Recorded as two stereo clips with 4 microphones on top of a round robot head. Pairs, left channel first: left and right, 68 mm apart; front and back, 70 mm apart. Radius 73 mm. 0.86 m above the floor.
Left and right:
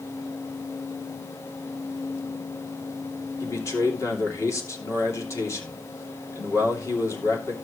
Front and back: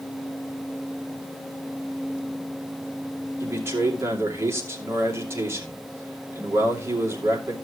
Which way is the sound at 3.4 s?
130° left.